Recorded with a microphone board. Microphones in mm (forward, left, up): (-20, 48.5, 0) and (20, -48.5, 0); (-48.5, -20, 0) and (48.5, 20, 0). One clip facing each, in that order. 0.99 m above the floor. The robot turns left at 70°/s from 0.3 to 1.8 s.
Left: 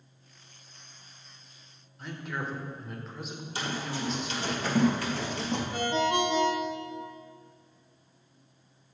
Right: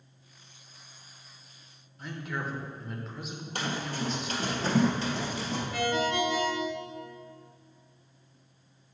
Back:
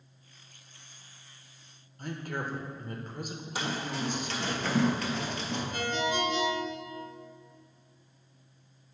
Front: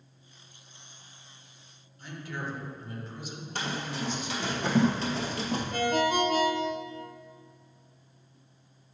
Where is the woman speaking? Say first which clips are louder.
Even, back 2 dB; 155° right, 0.8 m.